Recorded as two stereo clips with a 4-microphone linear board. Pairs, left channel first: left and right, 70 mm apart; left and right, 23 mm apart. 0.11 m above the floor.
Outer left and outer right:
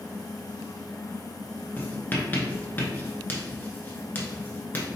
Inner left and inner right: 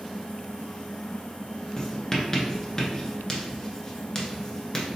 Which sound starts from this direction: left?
Writing, at 1.8 s.